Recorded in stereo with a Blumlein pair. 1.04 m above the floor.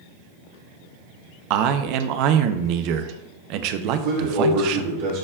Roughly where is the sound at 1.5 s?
Ahead right.